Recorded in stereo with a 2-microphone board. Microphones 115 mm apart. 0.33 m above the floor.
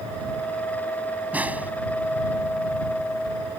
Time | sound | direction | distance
1.3 | a snare drum | 15° right (ahead or behind) | ?